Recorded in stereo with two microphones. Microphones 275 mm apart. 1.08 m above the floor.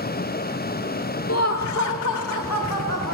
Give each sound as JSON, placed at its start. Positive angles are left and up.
{"t": 1.3, "sound": "laughter", "side_deg": 55, "distance_m": 0.6}